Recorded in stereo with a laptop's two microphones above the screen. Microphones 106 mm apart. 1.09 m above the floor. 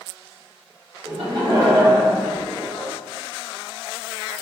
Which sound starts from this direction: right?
Laughter, at 1.1 s.